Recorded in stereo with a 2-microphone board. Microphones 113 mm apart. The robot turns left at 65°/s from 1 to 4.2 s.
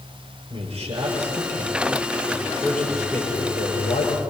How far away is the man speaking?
About 7.5 m.